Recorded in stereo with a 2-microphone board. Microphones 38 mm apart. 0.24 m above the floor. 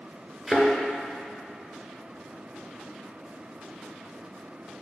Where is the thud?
10° right (ahead or behind), 1.5 m.